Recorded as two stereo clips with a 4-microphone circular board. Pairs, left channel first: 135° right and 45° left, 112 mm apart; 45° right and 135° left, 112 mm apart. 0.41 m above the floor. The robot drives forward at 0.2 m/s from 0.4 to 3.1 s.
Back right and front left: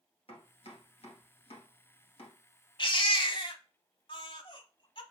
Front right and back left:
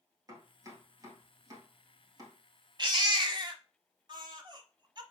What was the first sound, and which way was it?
Chopping, 165° right.